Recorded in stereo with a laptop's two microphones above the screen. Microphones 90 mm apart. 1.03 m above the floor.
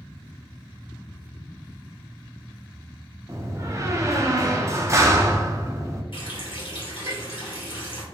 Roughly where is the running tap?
Left.